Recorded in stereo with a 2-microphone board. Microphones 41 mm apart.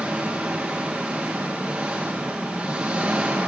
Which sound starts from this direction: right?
An engine running, at 0.0 s.